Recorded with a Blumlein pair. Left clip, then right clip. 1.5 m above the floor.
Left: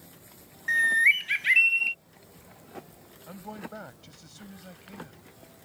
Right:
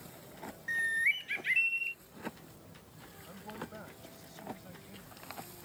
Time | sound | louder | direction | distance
0.7 | a bird | left 9 dB | 65° left | ?
3.3 | a man speaking | left 5 dB | 70° left | ?